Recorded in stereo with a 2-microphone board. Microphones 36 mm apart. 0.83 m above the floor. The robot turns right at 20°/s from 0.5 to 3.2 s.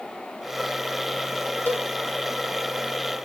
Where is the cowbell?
55° left (ahead or behind), 1.1 m.